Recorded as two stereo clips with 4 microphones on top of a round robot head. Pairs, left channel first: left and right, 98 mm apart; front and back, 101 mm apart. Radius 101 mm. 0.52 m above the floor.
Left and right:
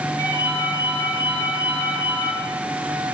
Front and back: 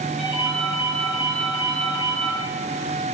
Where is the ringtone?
90° right, 5 m.